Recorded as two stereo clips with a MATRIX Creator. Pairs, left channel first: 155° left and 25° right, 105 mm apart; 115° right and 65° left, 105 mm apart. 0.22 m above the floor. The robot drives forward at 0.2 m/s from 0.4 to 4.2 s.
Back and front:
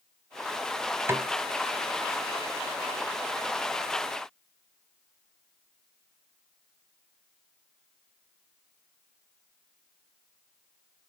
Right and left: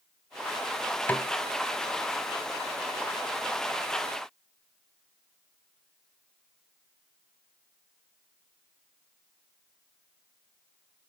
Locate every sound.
1.1 s a snare drum: 55° right, 0.6 m; by 1.3 s 60° right, 0.6 m